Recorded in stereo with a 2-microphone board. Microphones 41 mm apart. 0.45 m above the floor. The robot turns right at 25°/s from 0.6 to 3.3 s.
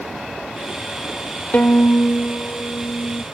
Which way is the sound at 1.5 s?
55° left.